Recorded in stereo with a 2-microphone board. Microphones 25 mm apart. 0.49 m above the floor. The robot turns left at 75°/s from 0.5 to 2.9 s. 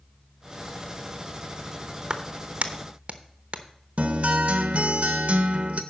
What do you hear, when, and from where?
2.1 s a clap: 35° right (ahead or behind), 0.8 m; by 3.6 s 55° right (ahead or behind), 0.8 m
4.0 s a guitar: 65° right (ahead or behind), 0.8 m